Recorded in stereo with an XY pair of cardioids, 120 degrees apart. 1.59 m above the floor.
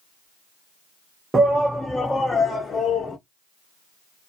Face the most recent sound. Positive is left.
turn(degrees=50)